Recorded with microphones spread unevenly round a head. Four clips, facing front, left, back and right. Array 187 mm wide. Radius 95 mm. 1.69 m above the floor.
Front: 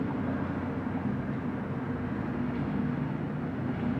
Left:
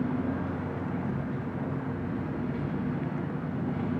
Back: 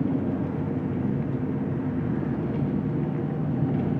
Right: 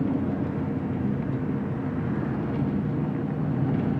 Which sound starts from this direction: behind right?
An engine running, at 0.0 s.